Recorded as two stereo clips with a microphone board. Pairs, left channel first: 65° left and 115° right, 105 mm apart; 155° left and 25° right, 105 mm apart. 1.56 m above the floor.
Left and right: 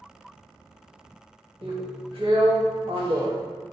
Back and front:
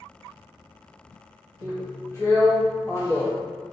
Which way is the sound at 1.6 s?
140° right.